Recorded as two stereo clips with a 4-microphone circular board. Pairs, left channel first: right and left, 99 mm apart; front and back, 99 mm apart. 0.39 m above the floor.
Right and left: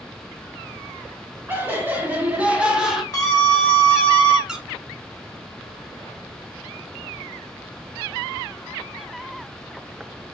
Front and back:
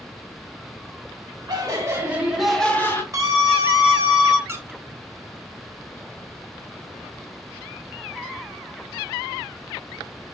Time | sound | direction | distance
1.5 | laughter | 150° left | 1.5 m
3.1 | a scream | 135° right | 1.3 m
4.5 | a squeak | 165° left | 0.8 m